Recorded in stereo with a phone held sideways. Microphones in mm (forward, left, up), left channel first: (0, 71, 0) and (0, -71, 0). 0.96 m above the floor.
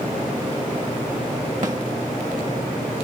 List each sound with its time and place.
1.6 s a snare drum: 55° right (ahead or behind), 1.9 m